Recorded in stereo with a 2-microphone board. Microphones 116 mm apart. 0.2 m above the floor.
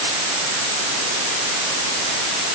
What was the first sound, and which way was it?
Only background noise.